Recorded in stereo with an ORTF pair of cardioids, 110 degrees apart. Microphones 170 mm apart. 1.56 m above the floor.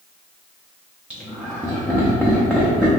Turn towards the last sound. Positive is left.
turn(degrees=-5)